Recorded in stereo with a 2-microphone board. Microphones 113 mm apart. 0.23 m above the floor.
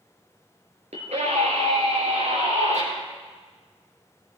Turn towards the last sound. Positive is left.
turn(degrees=-80)